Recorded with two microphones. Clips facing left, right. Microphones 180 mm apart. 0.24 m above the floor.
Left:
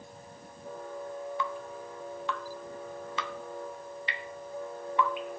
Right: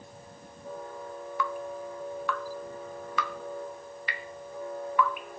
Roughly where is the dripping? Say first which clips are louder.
Right 3 dB; left.